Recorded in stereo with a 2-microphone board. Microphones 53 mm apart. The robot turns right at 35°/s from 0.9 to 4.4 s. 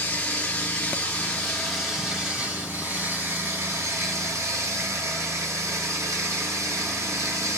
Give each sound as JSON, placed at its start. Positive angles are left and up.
{"t": 0.0, "sound": "running water", "azimuth_deg": 150, "distance_m": 1.4}